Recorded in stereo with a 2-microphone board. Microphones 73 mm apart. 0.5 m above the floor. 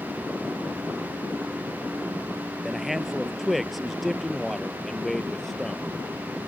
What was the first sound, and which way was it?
A man speaking, 5° right (ahead or behind).